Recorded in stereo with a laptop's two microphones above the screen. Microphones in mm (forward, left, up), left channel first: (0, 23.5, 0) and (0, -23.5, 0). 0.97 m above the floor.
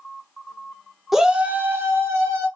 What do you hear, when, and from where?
1.1 s a shout: 5° right (ahead or behind), 0.8 m; by 2.5 s 70° right (ahead or behind), 1.4 m